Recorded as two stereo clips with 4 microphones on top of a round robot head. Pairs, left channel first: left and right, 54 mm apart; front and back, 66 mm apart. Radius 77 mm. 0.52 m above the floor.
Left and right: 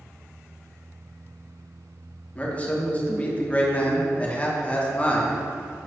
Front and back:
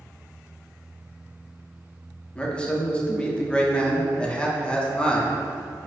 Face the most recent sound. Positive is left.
turn(degrees=60)